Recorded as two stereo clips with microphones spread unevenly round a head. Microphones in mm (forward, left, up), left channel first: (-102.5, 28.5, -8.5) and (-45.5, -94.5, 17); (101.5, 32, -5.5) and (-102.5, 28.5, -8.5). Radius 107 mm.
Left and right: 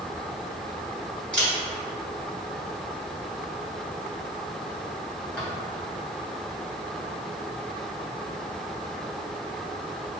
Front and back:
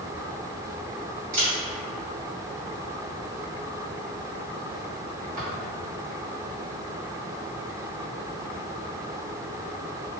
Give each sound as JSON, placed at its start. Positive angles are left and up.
{"t": 1.3, "sound": "a camera shutter", "azimuth_deg": -155, "distance_m": 1.8}